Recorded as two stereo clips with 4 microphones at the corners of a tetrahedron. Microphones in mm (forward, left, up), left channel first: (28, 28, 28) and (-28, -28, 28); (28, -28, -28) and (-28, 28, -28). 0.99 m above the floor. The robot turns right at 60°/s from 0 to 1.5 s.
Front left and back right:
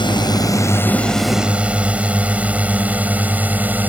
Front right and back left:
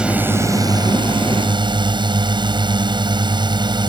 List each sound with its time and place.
0.0 s a drone: 55° left; by 3.9 s 155° left